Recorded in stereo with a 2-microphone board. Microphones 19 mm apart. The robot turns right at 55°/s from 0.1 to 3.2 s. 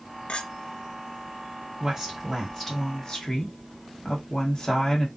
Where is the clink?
85° left, 0.6 m; by 0.5 s 75° left (ahead or behind), 0.6 m.